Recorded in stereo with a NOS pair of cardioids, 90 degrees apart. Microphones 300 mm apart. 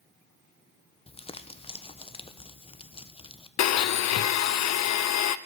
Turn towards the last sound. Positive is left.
turn(degrees=55)